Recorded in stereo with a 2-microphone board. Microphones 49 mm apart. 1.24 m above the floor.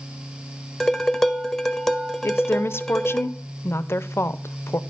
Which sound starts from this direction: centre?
Dishes clattering, at 0.8 s.